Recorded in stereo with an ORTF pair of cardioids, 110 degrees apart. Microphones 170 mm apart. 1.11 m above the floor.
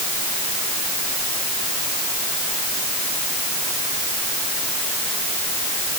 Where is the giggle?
No giggle in this recording.